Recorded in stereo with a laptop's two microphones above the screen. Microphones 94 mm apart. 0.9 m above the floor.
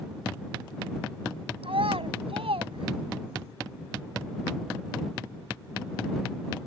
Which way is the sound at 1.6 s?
85° right.